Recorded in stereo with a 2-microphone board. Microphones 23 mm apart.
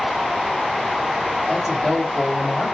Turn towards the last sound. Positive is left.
turn(degrees=-10)  # may be behind; listen again after turning